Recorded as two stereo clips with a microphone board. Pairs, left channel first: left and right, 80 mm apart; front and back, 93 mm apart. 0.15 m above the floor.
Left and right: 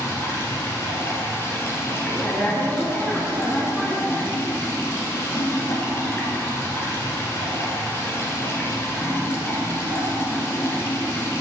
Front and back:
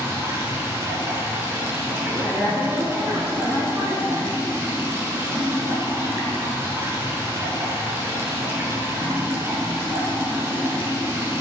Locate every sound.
0.0 s running water: 130° left, 1.3 m
2.0 s a woman speaking: 165° left, 1.5 m